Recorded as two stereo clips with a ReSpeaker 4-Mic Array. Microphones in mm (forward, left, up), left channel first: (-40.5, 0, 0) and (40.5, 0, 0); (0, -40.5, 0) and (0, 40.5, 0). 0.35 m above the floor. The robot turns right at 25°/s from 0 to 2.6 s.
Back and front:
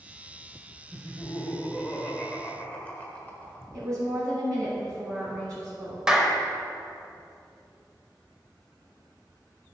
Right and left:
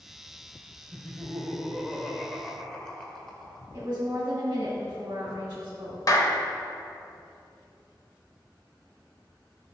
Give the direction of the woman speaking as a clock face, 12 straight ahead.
11 o'clock.